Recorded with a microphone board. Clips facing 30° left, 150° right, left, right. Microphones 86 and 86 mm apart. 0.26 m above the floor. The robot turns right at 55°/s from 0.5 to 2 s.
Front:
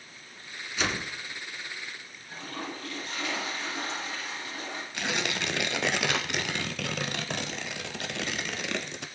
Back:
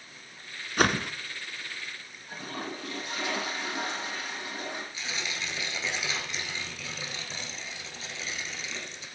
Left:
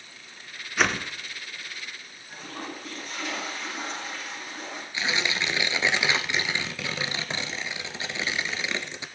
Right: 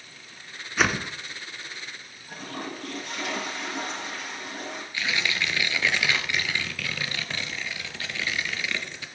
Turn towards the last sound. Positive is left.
turn(degrees=25)